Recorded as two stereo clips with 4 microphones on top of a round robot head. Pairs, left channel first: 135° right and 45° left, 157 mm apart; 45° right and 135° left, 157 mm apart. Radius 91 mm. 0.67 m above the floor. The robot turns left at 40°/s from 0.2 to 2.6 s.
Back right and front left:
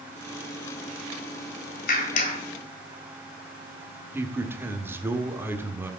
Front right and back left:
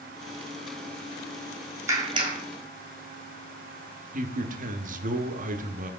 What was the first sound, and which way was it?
A clap, 155° right.